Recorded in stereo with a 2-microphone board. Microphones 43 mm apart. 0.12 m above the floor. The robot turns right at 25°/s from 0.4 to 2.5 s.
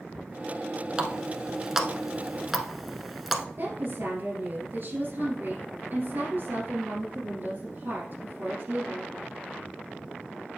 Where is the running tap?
20° right (ahead or behind), 0.8 m; by 3.5 s centre (ahead or behind), 0.8 m.